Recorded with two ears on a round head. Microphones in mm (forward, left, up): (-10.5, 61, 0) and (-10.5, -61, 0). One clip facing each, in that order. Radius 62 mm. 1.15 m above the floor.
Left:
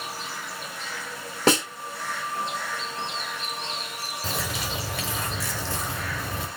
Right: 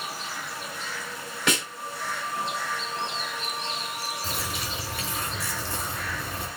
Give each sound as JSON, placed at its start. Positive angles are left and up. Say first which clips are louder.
{"t": 1.5, "sound": "a snare drum", "louder": "left 7 dB", "side_deg": 30, "distance_m": 1.6}
{"t": 4.2, "sound": "a bird", "louder": "left 2 dB", "side_deg": 65, "distance_m": 1.9}